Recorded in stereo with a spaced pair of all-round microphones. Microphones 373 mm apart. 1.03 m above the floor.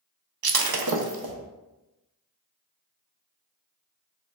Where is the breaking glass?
70° right (ahead or behind), 0.5 m.